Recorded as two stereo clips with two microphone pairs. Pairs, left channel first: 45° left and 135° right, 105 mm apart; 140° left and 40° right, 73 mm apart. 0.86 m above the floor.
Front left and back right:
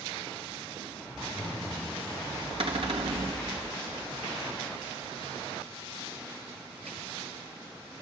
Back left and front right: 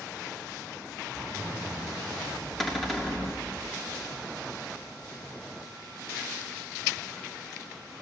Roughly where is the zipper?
Ahead.